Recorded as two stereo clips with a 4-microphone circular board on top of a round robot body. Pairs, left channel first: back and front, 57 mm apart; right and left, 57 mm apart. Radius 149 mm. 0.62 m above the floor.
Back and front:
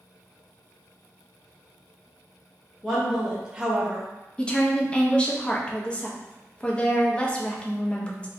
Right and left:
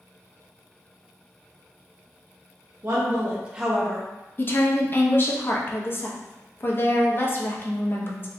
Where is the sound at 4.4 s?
115° right, 0.7 m.